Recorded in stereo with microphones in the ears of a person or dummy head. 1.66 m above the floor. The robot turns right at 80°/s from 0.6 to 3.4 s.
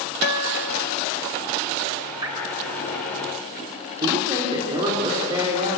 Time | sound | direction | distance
0.2 | a guitar | 60° left (ahead or behind) | 1.5 m
2.2 | dripping | 25° right (ahead or behind) | 6 m
4.0 | a woman speaking | 25° right (ahead or behind) | 4 m